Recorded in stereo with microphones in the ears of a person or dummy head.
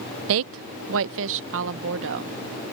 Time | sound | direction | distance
0.3 | a woman speaking | 65° right (ahead or behind) | ?